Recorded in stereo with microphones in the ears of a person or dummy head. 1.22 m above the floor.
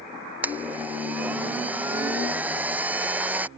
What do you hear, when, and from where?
0.4 s a blender: 10° right (ahead or behind)